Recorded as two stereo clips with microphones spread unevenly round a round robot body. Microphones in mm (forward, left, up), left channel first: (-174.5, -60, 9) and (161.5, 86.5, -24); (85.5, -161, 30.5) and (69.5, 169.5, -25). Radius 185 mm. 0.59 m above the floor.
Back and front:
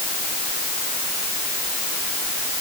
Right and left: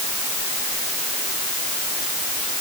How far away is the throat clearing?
I don't hear throat clearing.